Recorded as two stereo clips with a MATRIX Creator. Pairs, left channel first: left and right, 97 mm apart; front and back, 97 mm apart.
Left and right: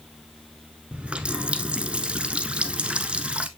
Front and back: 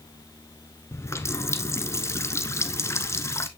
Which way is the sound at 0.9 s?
20° right.